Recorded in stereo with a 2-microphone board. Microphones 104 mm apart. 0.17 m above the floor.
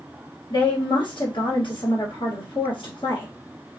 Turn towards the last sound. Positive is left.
turn(degrees=60)  # may be behind; listen again after turning